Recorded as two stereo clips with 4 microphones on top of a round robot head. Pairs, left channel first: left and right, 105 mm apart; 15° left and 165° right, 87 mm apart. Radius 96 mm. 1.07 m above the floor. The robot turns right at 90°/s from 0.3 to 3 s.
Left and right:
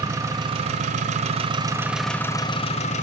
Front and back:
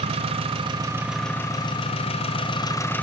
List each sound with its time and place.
0.0 s an engine running: 155° right, 0.9 m; by 3.0 s 85° left, 0.9 m